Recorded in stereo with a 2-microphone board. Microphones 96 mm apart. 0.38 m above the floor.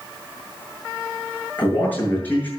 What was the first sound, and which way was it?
A man speaking, 20° left (ahead or behind).